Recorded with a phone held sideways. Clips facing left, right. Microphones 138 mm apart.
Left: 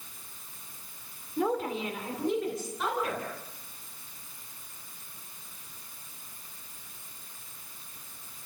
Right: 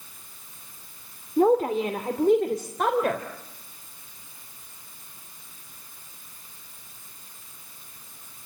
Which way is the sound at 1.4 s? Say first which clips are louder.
Right 9 dB; 45° right (ahead or behind).